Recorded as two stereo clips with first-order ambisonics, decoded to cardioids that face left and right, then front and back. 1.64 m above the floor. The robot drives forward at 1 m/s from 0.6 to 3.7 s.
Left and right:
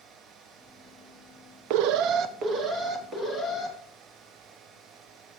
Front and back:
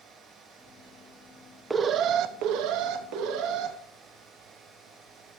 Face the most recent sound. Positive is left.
turn(degrees=-165)